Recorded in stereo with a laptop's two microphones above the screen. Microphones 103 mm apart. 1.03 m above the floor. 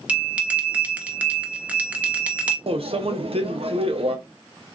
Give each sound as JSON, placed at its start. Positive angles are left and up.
{"t": 0.1, "sound": "a bell", "side_deg": -15, "distance_m": 1.0}
{"t": 2.7, "sound": "a microwave", "side_deg": -70, "distance_m": 0.7}